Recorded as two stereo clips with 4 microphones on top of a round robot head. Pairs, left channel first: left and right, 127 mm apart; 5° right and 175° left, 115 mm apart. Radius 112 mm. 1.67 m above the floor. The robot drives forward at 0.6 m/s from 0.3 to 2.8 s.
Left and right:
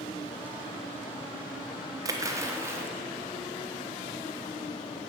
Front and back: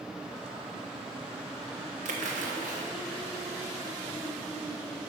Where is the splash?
155° right, 1.2 m; by 2.9 s 160° right, 1.6 m.